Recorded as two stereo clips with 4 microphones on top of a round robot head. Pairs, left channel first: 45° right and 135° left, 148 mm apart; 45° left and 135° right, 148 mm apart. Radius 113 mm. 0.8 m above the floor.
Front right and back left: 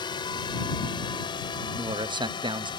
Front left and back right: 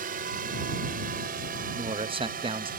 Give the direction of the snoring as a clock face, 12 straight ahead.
I don't hear snoring.